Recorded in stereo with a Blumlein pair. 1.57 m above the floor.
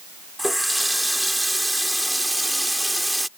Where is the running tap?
Straight ahead.